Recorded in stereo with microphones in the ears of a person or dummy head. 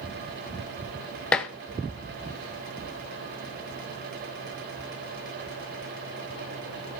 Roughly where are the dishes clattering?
Centre.